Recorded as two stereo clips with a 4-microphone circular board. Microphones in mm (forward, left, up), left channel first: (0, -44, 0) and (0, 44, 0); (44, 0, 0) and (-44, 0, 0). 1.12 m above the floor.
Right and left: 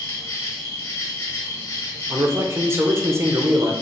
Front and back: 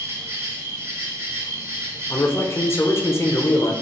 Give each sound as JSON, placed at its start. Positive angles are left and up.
{"t": 0.0, "sound": "an insect", "azimuth_deg": -135, "distance_m": 1.2}
{"t": 2.1, "sound": "a man speaking", "azimuth_deg": 45, "distance_m": 0.6}